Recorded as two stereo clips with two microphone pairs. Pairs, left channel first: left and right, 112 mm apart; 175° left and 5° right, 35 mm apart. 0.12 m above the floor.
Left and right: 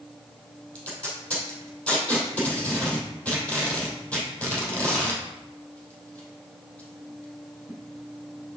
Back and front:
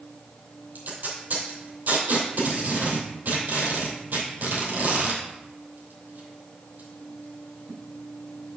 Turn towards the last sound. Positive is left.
turn(degrees=15)